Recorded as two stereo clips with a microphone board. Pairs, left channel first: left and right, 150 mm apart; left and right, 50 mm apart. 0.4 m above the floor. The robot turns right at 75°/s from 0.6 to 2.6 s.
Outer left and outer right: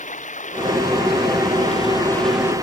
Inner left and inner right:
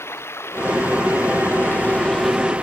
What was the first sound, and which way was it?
Running water, 50° left.